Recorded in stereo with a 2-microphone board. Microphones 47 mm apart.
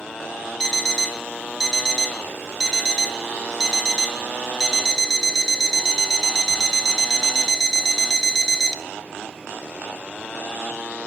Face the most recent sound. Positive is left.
turn(degrees=5)  # may be behind; listen again after turning